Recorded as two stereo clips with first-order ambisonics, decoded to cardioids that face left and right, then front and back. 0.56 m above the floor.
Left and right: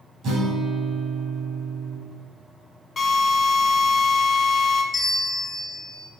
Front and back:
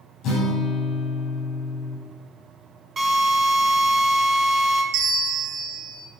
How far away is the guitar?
About 3 m.